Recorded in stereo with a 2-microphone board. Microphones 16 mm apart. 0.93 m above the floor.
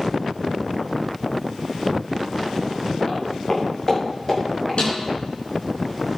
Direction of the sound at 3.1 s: 40° left (ahead or behind).